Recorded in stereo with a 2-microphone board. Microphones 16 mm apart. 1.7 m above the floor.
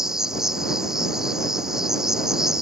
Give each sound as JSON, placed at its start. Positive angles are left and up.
{"t": 0.0, "sound": "an insect", "side_deg": -30}